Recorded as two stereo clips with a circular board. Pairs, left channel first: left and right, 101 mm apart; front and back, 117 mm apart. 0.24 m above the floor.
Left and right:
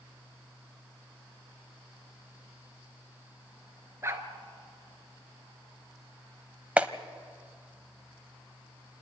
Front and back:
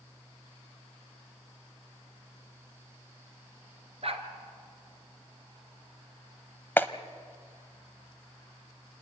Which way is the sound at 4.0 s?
150° right.